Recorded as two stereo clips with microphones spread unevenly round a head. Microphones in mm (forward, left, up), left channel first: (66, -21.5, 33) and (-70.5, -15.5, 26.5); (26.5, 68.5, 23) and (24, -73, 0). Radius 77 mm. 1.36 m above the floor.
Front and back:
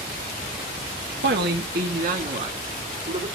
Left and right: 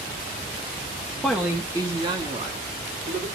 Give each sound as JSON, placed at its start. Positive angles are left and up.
{"t": 1.2, "sound": "a man speaking", "azimuth_deg": 175, "distance_m": 1.3}